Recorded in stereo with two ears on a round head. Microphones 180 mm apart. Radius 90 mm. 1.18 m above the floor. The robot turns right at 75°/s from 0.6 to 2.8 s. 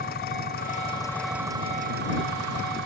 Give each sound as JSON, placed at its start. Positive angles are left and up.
{"t": 0.0, "sound": "an engine running", "azimuth_deg": 130}